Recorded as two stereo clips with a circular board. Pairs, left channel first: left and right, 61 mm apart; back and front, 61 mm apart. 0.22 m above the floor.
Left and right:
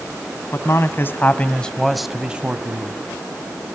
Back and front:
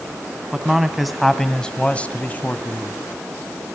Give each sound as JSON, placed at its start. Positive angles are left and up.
{"t": 0.5, "sound": "a man speaking", "azimuth_deg": 80, "distance_m": 2.0}